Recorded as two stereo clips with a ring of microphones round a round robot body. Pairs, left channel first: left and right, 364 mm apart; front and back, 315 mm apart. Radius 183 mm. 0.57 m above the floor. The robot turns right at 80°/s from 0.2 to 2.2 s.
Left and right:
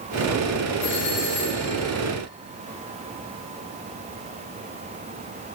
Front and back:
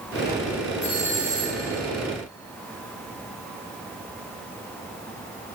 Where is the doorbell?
60° left, 3.5 m; by 1.7 s 135° left, 3.5 m.